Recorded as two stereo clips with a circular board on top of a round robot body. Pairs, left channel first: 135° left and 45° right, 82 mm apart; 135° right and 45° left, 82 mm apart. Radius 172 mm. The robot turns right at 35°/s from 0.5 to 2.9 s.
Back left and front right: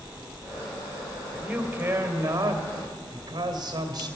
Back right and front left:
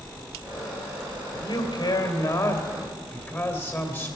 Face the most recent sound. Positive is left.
turn(degrees=-75)